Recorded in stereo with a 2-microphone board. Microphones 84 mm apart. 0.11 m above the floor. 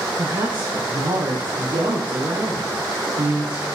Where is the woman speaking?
75° right (ahead or behind), 6.5 m.